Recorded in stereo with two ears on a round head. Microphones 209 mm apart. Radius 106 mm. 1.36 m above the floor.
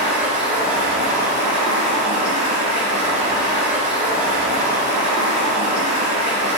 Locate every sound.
0.0 s running water: 5° right (ahead or behind), 1.4 m